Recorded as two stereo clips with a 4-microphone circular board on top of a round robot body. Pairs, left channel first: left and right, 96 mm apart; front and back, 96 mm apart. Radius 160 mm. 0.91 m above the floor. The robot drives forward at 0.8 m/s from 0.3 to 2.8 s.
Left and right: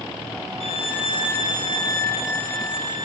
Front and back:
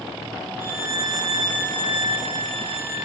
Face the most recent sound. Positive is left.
turn(degrees=155)